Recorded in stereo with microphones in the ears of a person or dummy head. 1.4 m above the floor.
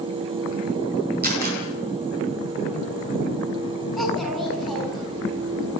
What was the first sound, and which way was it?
A camera shutter, 50° right (ahead or behind).